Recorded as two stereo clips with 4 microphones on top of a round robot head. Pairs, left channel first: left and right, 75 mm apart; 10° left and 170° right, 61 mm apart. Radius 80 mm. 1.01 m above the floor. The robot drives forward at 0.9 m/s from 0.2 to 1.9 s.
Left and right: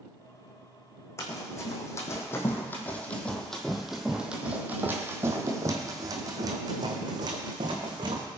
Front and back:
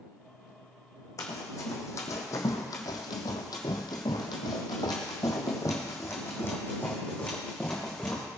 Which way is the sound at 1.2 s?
40° left.